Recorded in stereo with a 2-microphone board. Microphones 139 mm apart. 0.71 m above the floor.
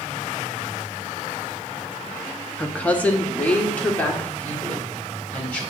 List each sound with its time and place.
2.6 s a woman speaking: 10° left (ahead or behind), 0.7 m